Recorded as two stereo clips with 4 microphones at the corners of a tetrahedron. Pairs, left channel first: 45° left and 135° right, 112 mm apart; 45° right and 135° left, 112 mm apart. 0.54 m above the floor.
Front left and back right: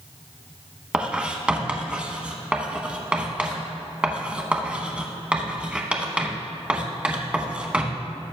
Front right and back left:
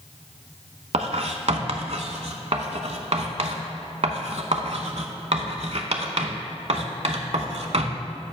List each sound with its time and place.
0.9 s writing: 145° left, 0.8 m